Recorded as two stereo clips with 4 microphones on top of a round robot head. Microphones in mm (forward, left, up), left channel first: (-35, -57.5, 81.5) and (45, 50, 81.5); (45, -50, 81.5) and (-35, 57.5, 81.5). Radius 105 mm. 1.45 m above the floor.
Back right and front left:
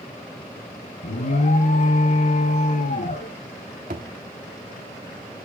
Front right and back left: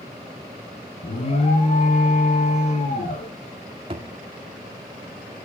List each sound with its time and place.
1.0 s an alarm: 95° right, 2.5 m
3.9 s a thud: 80° left, 1.2 m